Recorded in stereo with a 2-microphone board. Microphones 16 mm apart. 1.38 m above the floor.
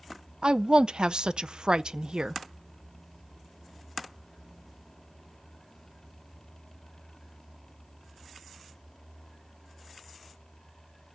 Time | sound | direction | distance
0.4 | a woman speaking | 70° right (ahead or behind) | 0.5 m